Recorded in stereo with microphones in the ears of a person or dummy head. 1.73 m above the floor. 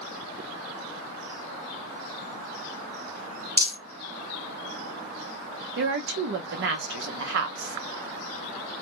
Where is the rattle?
10° right (ahead or behind), 1.0 m.